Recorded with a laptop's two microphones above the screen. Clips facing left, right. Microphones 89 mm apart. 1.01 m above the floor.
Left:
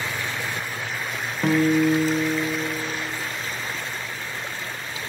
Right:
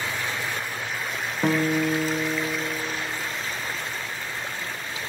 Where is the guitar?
10° right (ahead or behind), 0.7 m.